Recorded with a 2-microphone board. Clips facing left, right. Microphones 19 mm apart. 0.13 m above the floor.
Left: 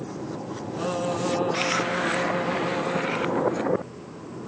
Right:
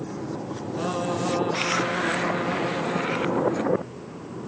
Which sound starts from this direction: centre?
Singing, at 0.8 s.